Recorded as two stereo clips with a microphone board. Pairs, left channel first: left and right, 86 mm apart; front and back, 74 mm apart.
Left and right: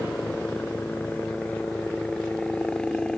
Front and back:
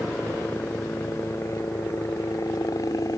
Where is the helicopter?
40° left; by 3.2 s 10° left.